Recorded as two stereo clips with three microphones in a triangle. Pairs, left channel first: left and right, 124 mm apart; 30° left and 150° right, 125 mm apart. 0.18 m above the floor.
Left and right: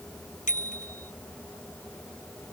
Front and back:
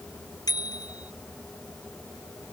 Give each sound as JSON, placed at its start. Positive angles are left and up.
{"t": 0.5, "sound": "a bicycle bell", "azimuth_deg": 90}